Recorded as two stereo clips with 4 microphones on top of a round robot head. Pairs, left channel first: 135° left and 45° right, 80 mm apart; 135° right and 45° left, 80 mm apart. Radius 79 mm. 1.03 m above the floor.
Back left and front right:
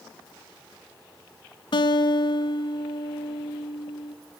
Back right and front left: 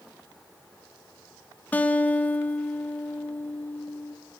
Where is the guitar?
155° left, 1.2 m.